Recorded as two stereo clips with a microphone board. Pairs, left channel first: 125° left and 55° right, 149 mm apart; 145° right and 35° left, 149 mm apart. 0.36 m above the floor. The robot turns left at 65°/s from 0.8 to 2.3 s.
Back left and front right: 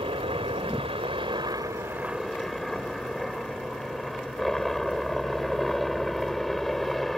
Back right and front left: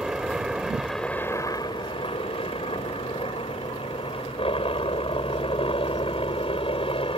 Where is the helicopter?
50° right; by 7.2 s 150° right.